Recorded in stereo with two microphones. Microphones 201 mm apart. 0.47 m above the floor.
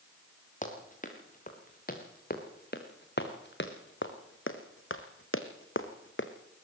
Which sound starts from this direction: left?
Running footsteps, at 0.6 s.